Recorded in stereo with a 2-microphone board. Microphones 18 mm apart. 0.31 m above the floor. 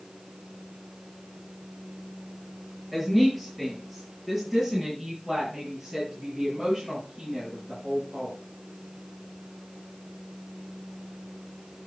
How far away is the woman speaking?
About 7 m.